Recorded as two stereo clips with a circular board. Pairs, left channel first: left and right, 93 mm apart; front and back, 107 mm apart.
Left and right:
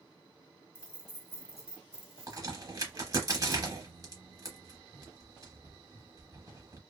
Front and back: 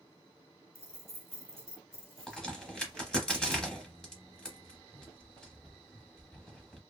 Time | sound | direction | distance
0.8 | keys jangling | 135° left | 1.0 m
2.3 | a crack | 80° right | 0.9 m